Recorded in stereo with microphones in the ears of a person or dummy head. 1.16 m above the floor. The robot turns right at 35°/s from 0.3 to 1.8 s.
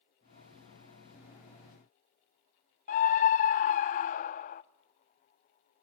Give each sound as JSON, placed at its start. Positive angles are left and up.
{"t": 2.9, "sound": "a scream", "side_deg": 35, "distance_m": 0.5}